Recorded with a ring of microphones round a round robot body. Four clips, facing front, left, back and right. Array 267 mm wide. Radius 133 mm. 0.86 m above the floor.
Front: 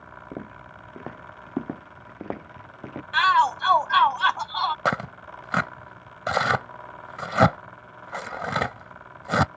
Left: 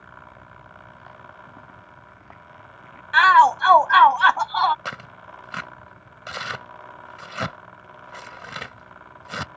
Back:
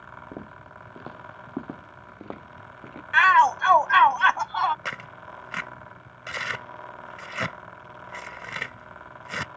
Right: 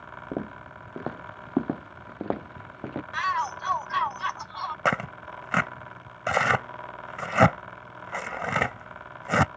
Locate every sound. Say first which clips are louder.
0.3 s footsteps: right 11 dB, front 5 dB; 80° right; by 3.0 s 65° right
3.1 s a shout: left 15 dB, back 2 dB; 105° left
4.8 s tearing paper: right 8 dB, front 10 dB; 40° right